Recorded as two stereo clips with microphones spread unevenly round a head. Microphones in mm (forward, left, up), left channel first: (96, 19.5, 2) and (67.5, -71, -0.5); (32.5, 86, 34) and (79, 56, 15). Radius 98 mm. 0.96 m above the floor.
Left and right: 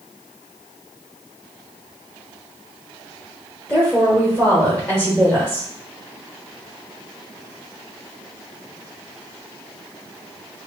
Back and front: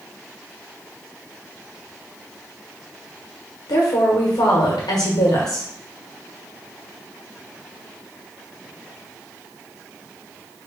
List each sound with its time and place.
3.7 s a woman speaking: 155° left, 1.3 m